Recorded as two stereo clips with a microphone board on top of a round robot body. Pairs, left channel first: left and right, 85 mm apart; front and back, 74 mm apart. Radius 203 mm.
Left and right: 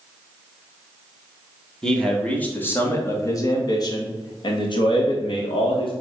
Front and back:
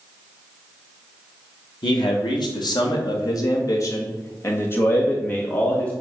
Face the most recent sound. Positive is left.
turn(degrees=75)